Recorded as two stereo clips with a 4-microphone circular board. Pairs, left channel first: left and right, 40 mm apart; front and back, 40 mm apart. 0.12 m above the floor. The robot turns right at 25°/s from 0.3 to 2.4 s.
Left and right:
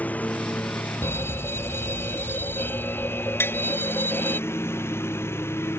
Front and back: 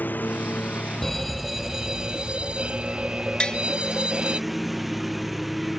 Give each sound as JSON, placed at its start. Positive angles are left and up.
{"t": 0.0, "sound": "a lawn mower", "azimuth_deg": 40}
{"t": 1.0, "sound": "a fire alarm", "azimuth_deg": 80}
{"t": 3.4, "sound": "tapping", "azimuth_deg": 65}